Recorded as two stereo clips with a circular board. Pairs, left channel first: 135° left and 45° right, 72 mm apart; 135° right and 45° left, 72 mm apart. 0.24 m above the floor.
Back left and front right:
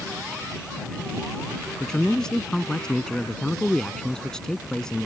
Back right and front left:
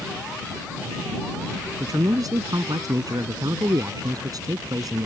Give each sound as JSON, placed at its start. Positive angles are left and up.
{"t": 1.8, "sound": "a man speaking", "azimuth_deg": 55}